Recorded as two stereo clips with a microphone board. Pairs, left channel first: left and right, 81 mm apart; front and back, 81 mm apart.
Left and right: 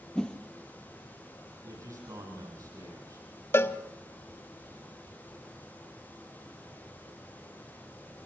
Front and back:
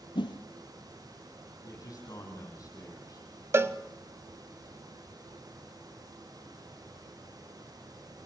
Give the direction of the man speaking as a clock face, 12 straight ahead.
1 o'clock.